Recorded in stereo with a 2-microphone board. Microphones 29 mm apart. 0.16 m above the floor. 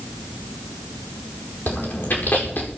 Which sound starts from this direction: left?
Chewing, at 1.7 s.